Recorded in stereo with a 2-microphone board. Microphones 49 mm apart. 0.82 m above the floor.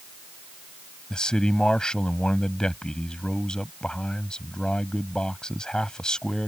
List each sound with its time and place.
1.1 s a man speaking: 15° left (ahead or behind)